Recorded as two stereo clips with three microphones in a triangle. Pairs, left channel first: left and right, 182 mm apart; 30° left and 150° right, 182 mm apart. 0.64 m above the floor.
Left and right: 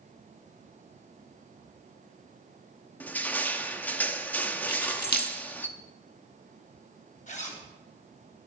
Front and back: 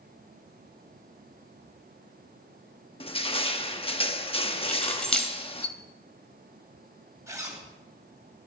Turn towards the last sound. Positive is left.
turn(degrees=135)